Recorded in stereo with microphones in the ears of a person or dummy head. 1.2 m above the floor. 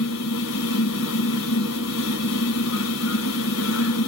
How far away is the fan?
About 0.8 m.